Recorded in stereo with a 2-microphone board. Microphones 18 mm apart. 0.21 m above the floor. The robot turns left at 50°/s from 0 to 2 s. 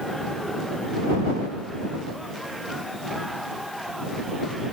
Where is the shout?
I don't hear a shout.